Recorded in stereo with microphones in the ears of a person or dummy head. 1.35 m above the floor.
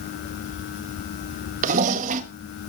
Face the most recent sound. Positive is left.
turn(degrees=-45)  # may be behind; listen again after turning